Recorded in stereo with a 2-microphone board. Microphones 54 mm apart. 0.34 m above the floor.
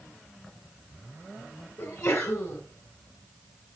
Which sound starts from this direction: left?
A sneeze, at 1.8 s.